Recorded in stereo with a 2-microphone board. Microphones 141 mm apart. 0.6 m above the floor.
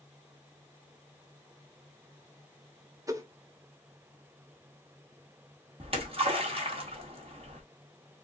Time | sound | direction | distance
3.1 | a whoosh | 25° right (ahead or behind) | 0.8 m
5.8 | a splash | 45° right (ahead or behind) | 1.7 m